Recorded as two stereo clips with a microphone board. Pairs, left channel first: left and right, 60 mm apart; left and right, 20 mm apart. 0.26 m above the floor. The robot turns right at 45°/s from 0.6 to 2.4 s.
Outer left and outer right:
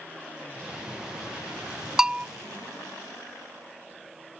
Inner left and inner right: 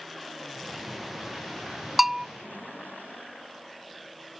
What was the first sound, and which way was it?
A bell, 10° right (ahead or behind).